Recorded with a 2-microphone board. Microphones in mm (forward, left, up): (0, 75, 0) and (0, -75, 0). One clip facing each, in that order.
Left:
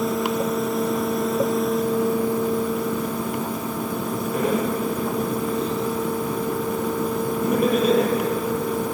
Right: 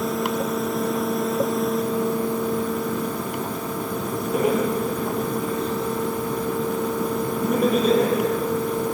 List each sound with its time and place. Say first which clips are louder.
4.3 s laughter: right 2 dB; 15° right (ahead or behind), 9 m; by 8.1 s 5° left (ahead or behind), 9.5 m